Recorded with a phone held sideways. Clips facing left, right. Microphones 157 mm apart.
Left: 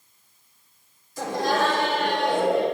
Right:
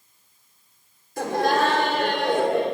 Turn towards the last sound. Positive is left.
turn(degrees=-55)  # may be behind; listen again after turning